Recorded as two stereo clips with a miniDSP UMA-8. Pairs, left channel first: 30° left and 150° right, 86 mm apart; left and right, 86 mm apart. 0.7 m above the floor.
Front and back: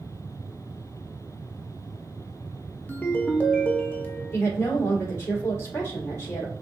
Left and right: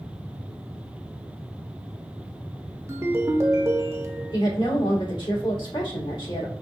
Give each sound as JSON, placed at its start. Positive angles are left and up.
{"t": 2.9, "sound": "a ringtone", "azimuth_deg": -40, "distance_m": 0.7}
{"t": 4.3, "sound": "a woman speaking", "azimuth_deg": 85, "distance_m": 2.0}